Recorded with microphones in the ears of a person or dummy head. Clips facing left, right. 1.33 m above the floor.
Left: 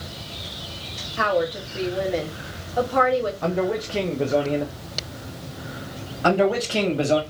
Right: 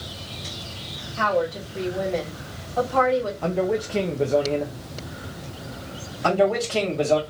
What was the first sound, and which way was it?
A woman speaking, 20° left (ahead or behind).